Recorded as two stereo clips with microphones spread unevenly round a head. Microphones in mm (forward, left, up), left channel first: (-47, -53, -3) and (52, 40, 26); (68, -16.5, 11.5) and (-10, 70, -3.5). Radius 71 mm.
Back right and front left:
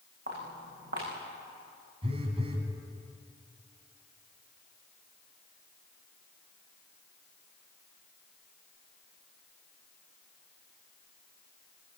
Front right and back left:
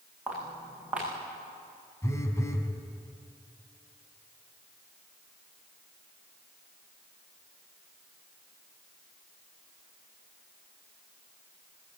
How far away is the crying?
No crying in this recording.